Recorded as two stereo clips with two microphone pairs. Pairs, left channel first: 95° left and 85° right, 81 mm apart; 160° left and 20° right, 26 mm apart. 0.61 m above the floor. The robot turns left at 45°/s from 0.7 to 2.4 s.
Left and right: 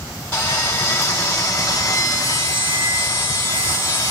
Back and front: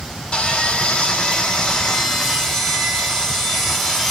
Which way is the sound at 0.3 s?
145° left.